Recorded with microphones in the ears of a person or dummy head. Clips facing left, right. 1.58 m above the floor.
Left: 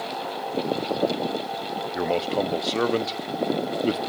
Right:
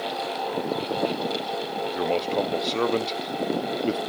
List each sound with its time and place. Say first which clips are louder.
1.9 s a man speaking: left 1 dB; 5° left (ahead or behind), 0.8 m